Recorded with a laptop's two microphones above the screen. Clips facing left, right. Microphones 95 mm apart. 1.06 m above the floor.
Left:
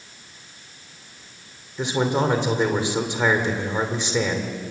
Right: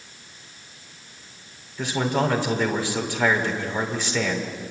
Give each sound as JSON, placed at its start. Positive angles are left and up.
{"t": 1.8, "sound": "a man speaking", "side_deg": 20, "distance_m": 2.5}